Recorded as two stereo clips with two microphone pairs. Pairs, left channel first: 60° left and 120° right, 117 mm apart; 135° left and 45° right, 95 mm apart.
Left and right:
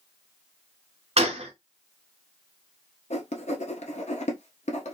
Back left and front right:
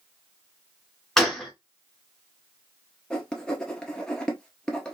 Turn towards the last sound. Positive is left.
turn(degrees=55)